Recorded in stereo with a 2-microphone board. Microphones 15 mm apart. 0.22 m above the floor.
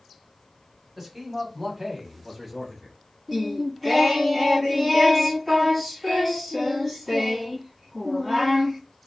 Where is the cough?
I don't hear a cough.